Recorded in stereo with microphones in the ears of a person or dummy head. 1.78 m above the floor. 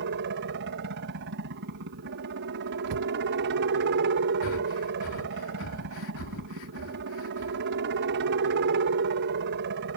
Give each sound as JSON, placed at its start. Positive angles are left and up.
{"t": 0.0, "sound": "a helicopter", "side_deg": -60}
{"t": 2.9, "sound": "a cupboard door", "side_deg": -85}
{"t": 4.4, "sound": "breathing", "side_deg": 75}